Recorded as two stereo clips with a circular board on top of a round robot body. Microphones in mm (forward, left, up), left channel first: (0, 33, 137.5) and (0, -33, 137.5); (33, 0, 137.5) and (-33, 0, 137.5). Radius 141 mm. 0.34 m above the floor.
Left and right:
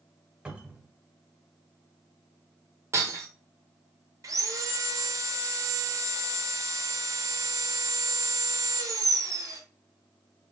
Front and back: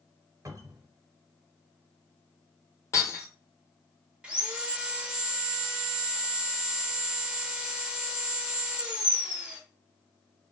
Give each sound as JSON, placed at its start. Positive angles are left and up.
{"t": 0.5, "sound": "a cupboard door", "azimuth_deg": -160, "distance_m": 1.7}
{"t": 2.9, "sound": "breaking glass", "azimuth_deg": -45, "distance_m": 1.1}
{"t": 4.2, "sound": "sawing", "azimuth_deg": -105, "distance_m": 1.4}